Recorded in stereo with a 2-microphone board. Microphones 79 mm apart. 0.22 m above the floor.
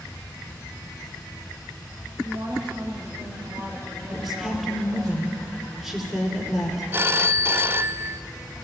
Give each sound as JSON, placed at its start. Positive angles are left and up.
{"t": 2.2, "sound": "a woman speaking", "side_deg": -70, "distance_m": 9.5}
{"t": 4.1, "sound": "a woman speaking", "side_deg": -5, "distance_m": 4.5}
{"t": 6.9, "sound": "a phone ringing", "side_deg": -30, "distance_m": 0.6}